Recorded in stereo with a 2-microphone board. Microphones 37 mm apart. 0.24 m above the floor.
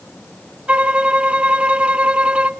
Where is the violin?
35° right (ahead or behind), 0.8 m.